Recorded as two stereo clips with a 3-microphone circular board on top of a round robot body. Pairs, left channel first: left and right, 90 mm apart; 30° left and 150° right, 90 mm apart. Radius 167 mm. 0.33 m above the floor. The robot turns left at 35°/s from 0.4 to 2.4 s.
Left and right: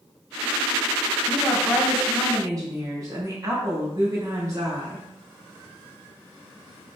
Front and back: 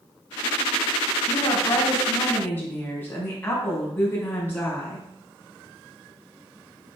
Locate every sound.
1.3 s a woman speaking: 5° left, 4 m; by 5.0 s 35° right, 4 m